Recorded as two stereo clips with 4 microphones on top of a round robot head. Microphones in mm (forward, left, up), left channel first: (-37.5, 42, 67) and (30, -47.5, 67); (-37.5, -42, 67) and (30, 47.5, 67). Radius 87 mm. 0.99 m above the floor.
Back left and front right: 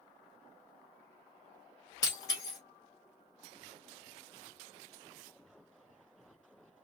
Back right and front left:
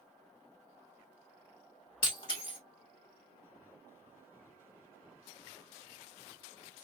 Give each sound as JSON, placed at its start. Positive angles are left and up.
{"t": 2.0, "sound": "breaking glass", "azimuth_deg": -175, "distance_m": 1.7}